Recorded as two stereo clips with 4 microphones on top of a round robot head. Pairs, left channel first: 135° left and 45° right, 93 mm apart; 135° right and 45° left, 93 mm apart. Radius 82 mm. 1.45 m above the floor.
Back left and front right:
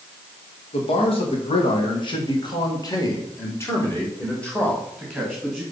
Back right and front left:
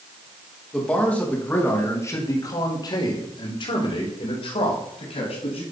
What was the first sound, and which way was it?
A man speaking, 145° left.